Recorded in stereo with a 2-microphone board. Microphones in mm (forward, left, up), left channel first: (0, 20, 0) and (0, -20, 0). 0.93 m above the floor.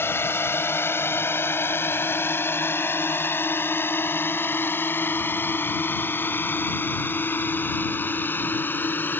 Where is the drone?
75° left (ahead or behind); by 9.2 s 55° left (ahead or behind).